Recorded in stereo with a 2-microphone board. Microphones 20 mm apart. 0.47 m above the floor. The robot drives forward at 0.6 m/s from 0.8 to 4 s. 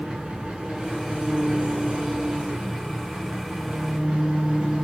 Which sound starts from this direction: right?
An engine running, at 0.0 s.